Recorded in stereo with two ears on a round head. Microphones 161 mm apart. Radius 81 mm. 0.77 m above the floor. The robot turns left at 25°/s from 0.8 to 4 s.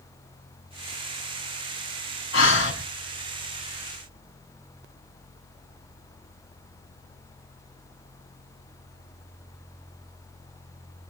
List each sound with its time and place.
2.3 s breathing: 85° left, 5.5 m; by 2.8 s 75° left (ahead or behind), 5.5 m